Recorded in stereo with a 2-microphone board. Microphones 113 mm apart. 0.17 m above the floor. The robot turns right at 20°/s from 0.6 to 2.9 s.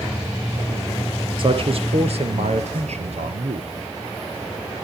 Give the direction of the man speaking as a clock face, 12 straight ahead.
4 o'clock.